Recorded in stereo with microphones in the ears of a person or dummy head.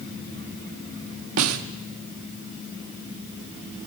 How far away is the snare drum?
About 1.2 m.